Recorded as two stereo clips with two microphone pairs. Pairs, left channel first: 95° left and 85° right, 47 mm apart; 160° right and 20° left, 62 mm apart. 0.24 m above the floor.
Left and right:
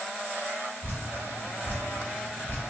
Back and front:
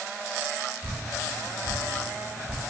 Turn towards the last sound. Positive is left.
turn(degrees=105)